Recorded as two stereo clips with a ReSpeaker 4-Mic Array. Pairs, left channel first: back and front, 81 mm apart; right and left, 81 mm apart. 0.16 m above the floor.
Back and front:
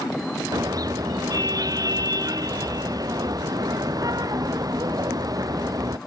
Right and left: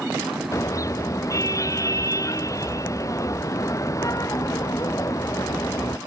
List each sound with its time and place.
0.5 s a car horn: 40° right